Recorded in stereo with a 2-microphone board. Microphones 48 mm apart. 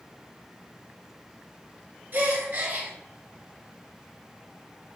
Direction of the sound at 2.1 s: 45° right (ahead or behind).